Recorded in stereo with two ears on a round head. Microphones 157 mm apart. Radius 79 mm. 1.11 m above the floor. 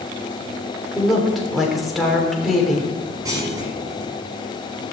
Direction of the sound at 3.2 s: 20° right (ahead or behind).